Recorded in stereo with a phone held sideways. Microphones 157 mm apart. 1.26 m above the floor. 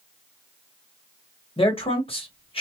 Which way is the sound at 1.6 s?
35° left (ahead or behind).